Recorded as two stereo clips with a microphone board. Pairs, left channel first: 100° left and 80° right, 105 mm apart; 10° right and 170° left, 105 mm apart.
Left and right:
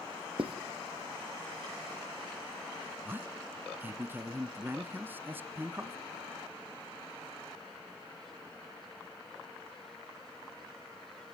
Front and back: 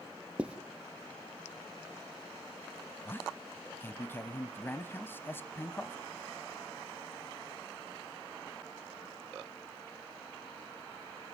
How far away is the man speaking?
About 1.1 m.